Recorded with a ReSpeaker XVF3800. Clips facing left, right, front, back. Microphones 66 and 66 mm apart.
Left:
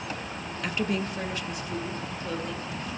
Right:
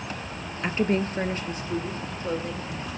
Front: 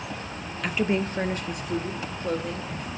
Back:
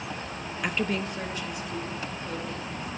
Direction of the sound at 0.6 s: 115° right.